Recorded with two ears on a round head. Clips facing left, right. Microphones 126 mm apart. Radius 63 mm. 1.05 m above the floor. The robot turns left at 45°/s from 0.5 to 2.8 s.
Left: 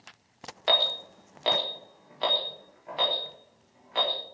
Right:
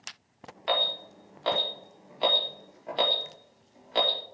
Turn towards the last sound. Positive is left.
turn(degrees=-35)  # may be behind; listen again after turning